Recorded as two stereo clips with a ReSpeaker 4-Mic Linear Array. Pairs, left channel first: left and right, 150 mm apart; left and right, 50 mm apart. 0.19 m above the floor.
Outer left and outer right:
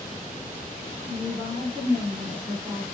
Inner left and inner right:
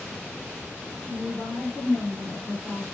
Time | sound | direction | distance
1.0 | a woman speaking | centre (ahead or behind) | 1.8 m